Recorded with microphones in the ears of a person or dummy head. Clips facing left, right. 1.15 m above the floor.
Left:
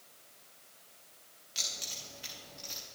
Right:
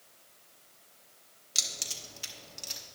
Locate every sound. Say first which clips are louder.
1.6 s keys jangling: right 2 dB; 75° right (ahead or behind), 1.3 m